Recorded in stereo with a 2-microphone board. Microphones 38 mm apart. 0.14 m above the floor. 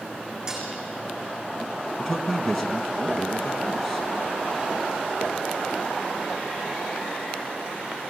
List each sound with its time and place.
0.5 s dishes clattering: 20° right (ahead or behind), 6 m
2.0 s a man speaking: centre (ahead or behind), 1.2 m